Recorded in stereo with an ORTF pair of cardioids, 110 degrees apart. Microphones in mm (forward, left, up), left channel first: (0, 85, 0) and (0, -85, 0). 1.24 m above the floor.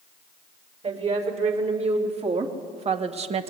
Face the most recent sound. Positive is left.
turn(degrees=-40)